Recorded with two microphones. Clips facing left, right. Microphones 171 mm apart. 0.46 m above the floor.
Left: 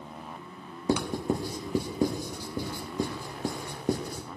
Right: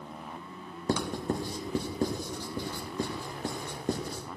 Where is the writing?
10° left (ahead or behind), 1.6 m.